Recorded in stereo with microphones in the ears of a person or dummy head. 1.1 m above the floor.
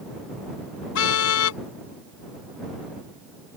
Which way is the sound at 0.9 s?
80° left.